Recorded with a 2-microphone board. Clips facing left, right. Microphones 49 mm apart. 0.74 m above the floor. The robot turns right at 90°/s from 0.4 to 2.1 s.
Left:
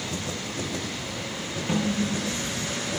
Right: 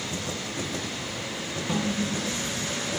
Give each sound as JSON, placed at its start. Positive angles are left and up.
{"t": 1.7, "sound": "a snare drum", "azimuth_deg": 55, "distance_m": 4.5}